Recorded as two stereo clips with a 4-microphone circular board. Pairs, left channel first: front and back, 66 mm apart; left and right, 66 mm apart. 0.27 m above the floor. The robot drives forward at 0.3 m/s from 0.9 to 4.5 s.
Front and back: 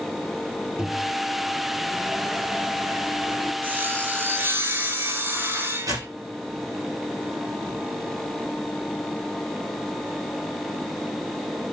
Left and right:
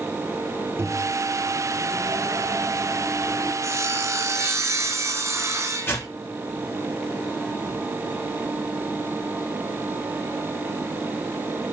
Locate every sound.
0.8 s a microwave: 105° right, 1.8 m; by 3.5 s 135° right, 2 m
3.6 s sawing: 125° right, 3 m; by 6.1 s 130° right, 3 m
5.9 s tearing paper: 145° left, 4.5 m